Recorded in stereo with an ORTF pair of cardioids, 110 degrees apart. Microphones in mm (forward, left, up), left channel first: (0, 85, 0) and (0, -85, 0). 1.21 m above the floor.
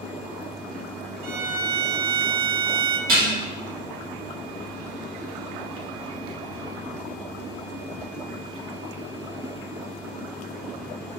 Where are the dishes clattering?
60° right, 1.8 m.